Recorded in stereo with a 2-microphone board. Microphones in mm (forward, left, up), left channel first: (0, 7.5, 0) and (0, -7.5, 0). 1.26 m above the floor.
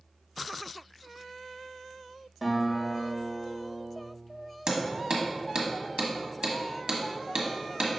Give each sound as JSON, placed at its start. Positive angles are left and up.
{"t": 2.4, "sound": "a guitar", "side_deg": 0, "distance_m": 1.4}
{"t": 4.7, "sound": "hammering", "side_deg": -50, "distance_m": 1.3}